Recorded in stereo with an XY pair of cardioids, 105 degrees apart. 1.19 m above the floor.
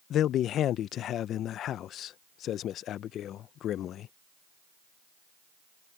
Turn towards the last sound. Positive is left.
turn(degrees=70)